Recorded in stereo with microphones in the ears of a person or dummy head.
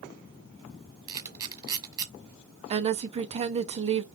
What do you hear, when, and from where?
1.1 s a camera shutter: 25° right (ahead or behind), 1.3 m
2.7 s a woman speaking: 35° right (ahead or behind), 0.7 m